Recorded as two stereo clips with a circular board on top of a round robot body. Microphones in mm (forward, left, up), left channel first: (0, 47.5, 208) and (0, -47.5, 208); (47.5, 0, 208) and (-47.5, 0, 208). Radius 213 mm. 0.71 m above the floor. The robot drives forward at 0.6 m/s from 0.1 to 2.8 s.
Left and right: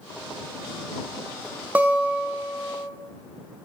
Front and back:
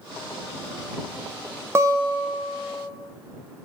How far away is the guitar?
About 0.5 m.